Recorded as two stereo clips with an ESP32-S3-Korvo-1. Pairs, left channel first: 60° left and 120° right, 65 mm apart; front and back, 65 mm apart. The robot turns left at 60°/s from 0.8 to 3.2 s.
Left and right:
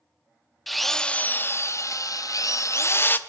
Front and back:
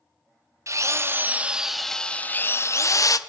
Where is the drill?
150° left, 0.7 m; by 3.2 s 5° left, 0.7 m.